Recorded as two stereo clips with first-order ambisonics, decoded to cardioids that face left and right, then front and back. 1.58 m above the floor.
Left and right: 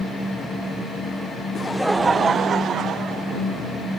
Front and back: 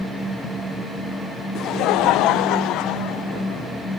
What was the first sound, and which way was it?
Laughter, 25° left.